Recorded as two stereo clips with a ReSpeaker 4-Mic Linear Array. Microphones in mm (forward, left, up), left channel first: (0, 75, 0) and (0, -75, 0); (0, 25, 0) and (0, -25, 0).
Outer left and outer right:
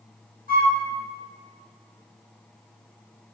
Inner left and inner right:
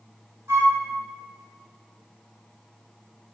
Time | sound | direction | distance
0.5 | a flute | 75° right (ahead or behind) | 1.1 m